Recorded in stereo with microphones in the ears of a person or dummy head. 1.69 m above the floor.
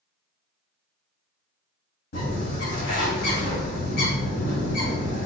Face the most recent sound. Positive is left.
turn(degrees=55)  # may be behind; listen again after turning